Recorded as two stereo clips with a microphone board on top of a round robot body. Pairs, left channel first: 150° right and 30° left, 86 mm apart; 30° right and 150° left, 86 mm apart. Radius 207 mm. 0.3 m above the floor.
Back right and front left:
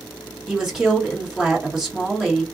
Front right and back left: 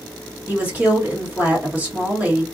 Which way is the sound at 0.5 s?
105° left.